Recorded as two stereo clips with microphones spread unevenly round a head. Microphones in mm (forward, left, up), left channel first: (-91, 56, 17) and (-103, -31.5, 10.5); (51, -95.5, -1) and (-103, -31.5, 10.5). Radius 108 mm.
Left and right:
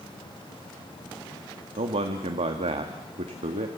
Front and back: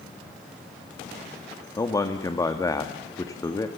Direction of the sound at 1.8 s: 95° right.